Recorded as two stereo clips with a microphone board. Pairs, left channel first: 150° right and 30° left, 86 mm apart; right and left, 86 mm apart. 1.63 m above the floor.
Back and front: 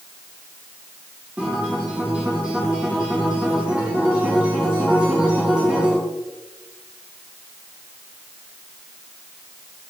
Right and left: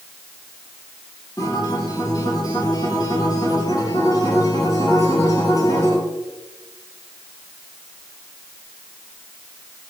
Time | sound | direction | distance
1.4 | a guitar | 45° right | 5.5 m